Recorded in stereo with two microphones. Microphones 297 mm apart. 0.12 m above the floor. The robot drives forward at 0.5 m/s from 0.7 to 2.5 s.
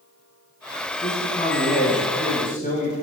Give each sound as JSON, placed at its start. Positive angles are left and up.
{"t": 1.0, "sound": "a man speaking", "side_deg": 25, "distance_m": 8.0}